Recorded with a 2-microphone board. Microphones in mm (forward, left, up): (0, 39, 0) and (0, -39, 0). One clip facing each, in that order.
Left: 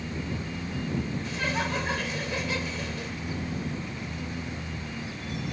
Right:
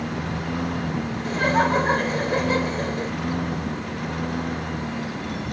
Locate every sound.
0.0 s a lawn mower: 65° right (ahead or behind); by 5.5 s 60° right (ahead or behind)
1.2 s laughter: 45° right (ahead or behind)